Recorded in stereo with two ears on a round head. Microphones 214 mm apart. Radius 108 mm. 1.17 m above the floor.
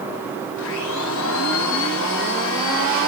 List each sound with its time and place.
0.6 s a blender: 60° left (ahead or behind), 7.5 m